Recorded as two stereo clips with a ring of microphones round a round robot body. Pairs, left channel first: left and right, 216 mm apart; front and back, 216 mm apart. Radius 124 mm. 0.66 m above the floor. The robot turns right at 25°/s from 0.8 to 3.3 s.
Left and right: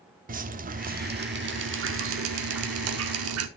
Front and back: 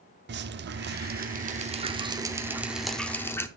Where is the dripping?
140° right, 1.0 m; by 3.5 s 80° right, 1.0 m.